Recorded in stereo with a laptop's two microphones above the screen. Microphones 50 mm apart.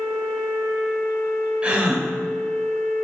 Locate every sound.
1.6 s a gasp: 20° right (ahead or behind), 1.5 m